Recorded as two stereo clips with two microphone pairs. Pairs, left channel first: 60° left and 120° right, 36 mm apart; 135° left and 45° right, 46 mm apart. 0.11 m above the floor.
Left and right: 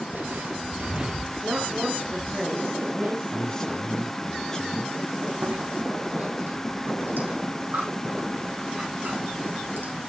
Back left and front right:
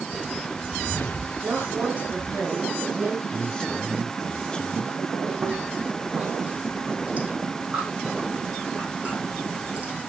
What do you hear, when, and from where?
0.1 s footsteps: 130° right, 0.8 m; by 2.4 s 110° left, 1.0 m
1.4 s a woman speaking: 95° right, 4.5 m
3.3 s a man speaking: 90° left, 1.6 m
5.3 s chewing: 100° right, 7.5 m